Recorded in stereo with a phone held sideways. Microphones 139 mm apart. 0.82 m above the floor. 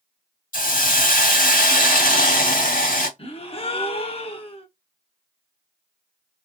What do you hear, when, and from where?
0.5 s a hiss: 85° left, 1.7 m
3.2 s a gasp: 45° left (ahead or behind), 0.8 m